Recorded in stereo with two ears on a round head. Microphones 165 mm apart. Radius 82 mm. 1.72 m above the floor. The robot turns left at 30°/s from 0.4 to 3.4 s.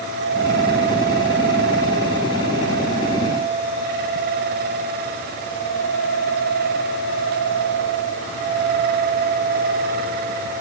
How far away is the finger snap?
No finger snap in this recording.